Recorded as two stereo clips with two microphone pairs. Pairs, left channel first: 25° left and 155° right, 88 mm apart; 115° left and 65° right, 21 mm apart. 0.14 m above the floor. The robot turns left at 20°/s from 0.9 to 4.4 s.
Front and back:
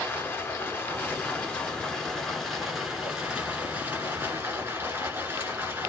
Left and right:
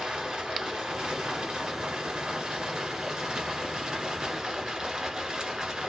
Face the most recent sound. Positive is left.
turn(degrees=-100)